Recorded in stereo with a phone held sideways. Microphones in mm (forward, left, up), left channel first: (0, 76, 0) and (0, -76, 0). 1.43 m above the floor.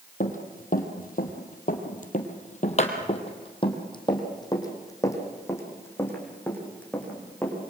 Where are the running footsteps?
55° left (ahead or behind), 3 m; by 7.7 s 5° left (ahead or behind), 6.5 m.